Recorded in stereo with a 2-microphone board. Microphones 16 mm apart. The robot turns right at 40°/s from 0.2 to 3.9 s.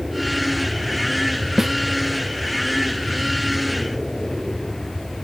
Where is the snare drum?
25° right (ahead or behind); by 1.7 s 15° right (ahead or behind).